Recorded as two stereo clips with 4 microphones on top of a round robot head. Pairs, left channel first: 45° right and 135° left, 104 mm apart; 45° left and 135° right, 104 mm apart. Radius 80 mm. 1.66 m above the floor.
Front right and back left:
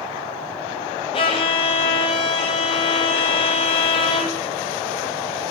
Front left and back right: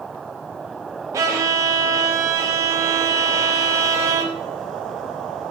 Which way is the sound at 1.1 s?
75° right.